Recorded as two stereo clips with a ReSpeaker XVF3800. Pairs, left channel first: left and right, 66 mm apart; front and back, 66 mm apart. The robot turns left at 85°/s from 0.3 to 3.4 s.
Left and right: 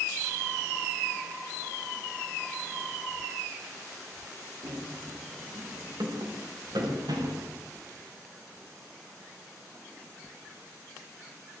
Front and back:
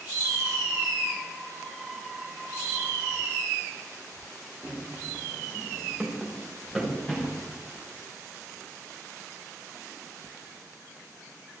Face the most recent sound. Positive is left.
turn(degrees=-85)